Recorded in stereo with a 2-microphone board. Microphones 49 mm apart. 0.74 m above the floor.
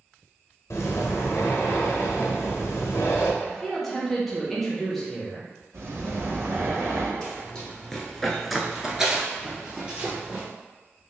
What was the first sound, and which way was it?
Breathing, 65° left (ahead or behind).